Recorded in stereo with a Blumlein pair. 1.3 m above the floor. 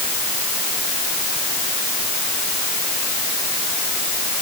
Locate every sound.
Only background noise.